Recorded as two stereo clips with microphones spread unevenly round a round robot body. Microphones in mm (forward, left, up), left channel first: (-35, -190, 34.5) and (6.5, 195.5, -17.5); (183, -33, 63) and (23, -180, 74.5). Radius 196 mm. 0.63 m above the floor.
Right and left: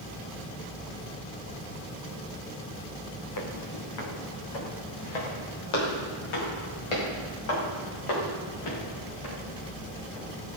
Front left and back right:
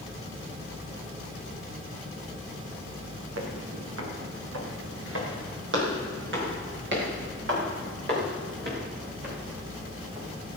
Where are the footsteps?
135° right, 4 m; by 10.6 s 95° right, 12.5 m.